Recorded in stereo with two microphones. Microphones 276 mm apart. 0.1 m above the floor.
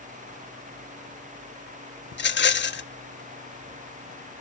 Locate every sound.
2.1 s a rattle: 40° left (ahead or behind), 0.5 m